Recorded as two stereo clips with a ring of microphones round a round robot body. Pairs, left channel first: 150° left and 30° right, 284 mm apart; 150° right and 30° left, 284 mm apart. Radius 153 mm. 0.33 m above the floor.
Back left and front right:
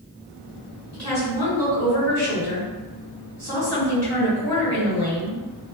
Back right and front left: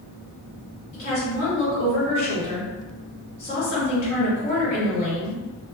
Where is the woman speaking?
90° right, 1.9 m.